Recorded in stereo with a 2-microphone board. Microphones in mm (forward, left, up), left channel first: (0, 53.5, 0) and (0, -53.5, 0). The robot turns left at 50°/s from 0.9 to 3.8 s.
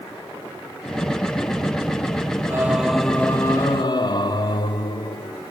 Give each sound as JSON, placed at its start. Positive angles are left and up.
{"t": 2.5, "sound": "singing", "azimuth_deg": -155, "distance_m": 0.5}